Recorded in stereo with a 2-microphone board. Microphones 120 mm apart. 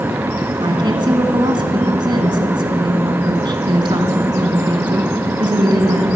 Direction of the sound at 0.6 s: 40° right (ahead or behind).